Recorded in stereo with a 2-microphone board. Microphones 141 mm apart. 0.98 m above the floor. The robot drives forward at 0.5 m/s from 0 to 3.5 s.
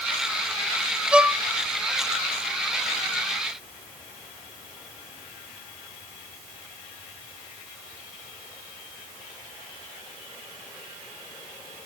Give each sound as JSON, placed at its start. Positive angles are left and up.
{"t": 1.1, "sound": "a violin", "side_deg": -5, "distance_m": 0.8}